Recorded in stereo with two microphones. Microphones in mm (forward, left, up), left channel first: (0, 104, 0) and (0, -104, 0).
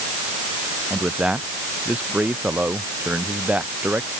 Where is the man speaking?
5° right (ahead or behind).